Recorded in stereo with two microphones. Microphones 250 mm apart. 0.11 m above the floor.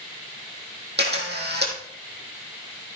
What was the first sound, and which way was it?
A camera shutter, 45° right (ahead or behind).